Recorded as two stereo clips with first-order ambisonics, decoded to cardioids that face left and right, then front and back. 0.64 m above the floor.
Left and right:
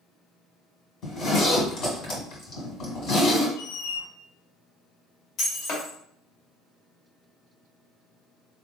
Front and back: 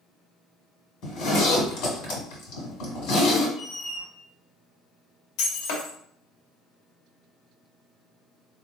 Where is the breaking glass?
30° left, 1.3 m.